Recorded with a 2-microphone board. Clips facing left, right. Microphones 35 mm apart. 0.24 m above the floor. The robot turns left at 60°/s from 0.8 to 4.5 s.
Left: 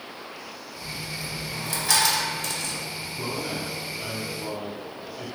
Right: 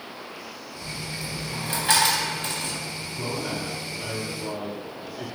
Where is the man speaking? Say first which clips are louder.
Right 1 dB; 15° right (ahead or behind), 1.1 m; by 5.3 s 15° left (ahead or behind), 1.1 m.